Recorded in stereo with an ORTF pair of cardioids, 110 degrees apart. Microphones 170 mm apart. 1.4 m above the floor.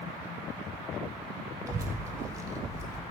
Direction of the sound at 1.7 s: 20° right.